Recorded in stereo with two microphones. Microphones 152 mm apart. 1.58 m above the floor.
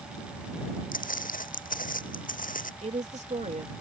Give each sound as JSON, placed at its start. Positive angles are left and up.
{"t": 0.9, "sound": "footsteps", "side_deg": 65}
{"t": 2.8, "sound": "a woman speaking", "side_deg": -50}